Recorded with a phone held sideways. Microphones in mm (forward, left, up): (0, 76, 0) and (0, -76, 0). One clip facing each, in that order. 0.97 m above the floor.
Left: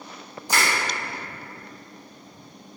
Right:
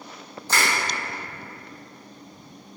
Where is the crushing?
15° left (ahead or behind), 0.9 m.